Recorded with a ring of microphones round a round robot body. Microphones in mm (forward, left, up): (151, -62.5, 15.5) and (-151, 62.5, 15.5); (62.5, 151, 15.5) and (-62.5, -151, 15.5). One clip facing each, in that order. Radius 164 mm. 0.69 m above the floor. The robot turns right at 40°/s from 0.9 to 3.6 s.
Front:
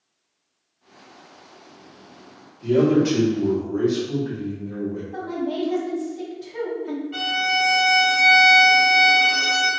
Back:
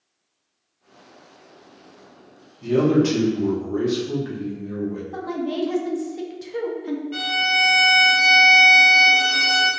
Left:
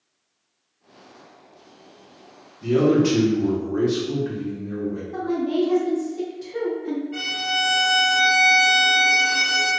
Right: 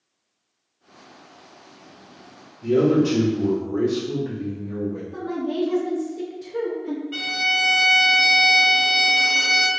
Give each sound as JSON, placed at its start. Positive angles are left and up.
{"t": 2.6, "sound": "a man speaking", "azimuth_deg": 120, "distance_m": 1.3}
{"t": 5.1, "sound": "a woman speaking", "azimuth_deg": 155, "distance_m": 0.7}
{"t": 7.1, "sound": "a violin", "azimuth_deg": -140, "distance_m": 0.9}